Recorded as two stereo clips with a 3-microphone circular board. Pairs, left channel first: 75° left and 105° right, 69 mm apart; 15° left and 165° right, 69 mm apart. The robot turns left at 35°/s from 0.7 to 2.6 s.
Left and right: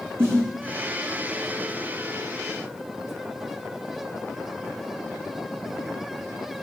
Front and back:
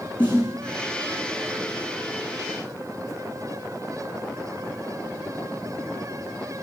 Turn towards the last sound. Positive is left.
turn(degrees=-120)